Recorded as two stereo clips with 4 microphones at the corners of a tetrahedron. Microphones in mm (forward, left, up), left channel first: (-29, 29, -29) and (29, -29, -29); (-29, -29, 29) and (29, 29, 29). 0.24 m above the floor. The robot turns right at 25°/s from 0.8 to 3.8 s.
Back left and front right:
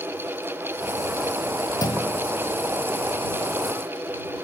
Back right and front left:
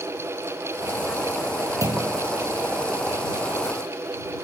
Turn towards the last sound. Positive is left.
turn(degrees=145)